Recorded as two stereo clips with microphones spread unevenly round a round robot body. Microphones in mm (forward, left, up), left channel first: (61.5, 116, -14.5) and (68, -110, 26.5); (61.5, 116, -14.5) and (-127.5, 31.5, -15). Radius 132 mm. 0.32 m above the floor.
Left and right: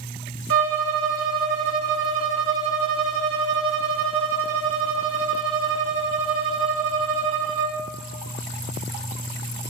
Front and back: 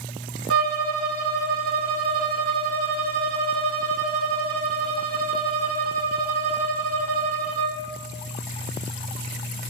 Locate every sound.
0.5 s a violin: 130° right, 0.5 m